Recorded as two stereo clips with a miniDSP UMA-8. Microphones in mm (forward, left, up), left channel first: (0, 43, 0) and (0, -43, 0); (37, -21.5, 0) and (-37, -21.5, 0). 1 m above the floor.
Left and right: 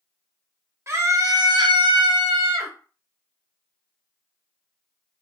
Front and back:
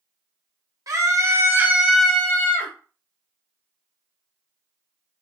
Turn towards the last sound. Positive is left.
turn(degrees=-45)